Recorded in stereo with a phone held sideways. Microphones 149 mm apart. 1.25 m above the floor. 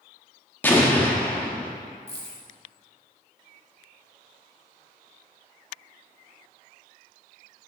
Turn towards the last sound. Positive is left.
turn(degrees=40)  # may be behind; listen again after turning